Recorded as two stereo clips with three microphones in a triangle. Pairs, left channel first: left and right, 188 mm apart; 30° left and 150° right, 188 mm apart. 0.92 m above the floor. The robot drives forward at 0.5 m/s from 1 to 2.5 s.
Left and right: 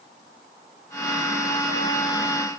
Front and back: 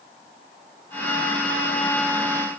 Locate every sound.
Only background noise.